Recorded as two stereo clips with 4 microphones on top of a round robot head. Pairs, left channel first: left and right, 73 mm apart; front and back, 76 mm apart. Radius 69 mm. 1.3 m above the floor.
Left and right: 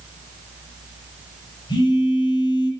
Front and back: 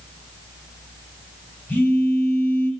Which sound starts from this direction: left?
A phone buzzing, at 1.7 s.